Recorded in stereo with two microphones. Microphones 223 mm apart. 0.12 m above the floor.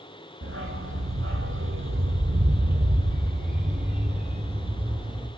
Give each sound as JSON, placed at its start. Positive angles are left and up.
{"t": 0.4, "sound": "a dog barking", "side_deg": -70, "distance_m": 1.8}